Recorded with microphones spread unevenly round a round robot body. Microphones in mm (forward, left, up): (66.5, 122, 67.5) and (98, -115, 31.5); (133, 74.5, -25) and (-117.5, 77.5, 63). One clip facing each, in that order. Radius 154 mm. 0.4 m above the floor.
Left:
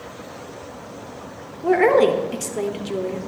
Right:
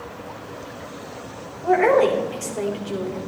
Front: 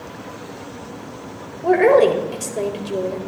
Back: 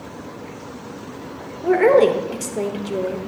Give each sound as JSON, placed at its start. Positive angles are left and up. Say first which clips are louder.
{"t": 1.6, "sound": "a woman speaking", "louder": "left 2 dB, even", "azimuth_deg": 75, "distance_m": 1.5}